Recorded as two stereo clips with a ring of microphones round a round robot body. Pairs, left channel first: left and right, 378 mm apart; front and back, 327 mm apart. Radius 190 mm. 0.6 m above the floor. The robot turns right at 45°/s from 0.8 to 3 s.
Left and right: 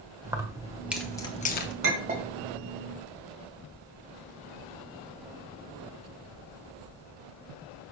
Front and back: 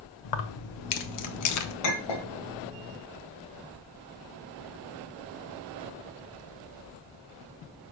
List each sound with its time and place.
0.2 s keys jangling: 10° right, 0.8 m; by 1.7 s 35° left, 0.8 m
1.8 s a clink: 30° right, 2 m; by 2.3 s 10° right, 2 m